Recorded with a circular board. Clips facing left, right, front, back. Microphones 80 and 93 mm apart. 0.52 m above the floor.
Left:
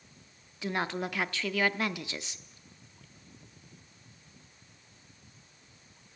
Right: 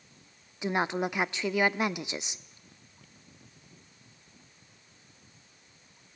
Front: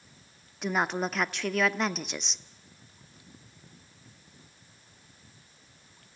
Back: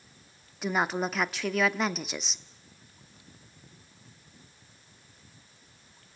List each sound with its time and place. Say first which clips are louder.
0.6 s a woman speaking: right 4 dB, even; 95° right, 0.7 m